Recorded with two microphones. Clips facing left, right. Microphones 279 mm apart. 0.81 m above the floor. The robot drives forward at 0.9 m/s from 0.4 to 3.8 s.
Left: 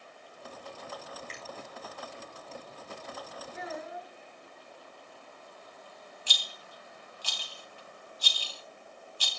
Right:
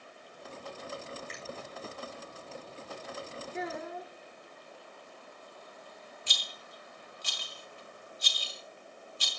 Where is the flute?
I don't hear a flute.